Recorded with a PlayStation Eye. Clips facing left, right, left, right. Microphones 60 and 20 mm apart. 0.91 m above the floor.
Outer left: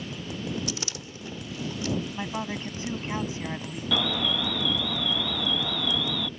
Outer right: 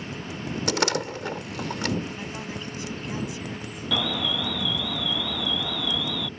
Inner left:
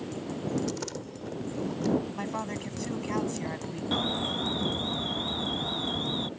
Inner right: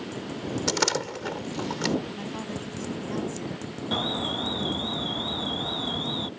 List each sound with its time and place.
0.7 s a door slam: 70° right (ahead or behind)
2.1 s a woman speaking: 35° left (ahead or behind)
3.9 s an alarm: centre (ahead or behind)